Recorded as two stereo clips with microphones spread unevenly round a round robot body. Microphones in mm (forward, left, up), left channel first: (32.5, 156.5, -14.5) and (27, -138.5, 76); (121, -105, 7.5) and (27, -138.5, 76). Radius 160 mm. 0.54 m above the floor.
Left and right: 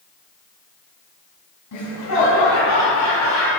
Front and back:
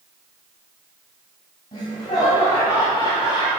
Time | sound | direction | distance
1.7 | laughter | 50° left | 3.5 m